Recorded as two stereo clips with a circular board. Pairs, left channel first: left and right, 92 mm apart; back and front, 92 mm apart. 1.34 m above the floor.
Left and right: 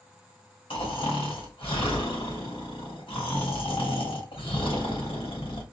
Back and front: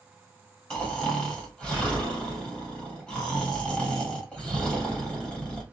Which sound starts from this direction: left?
Snoring, at 0.7 s.